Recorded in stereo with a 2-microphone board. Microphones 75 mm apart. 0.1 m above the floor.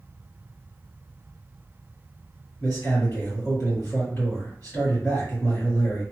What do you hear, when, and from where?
2.6 s a man speaking: 20° left (ahead or behind), 1.9 m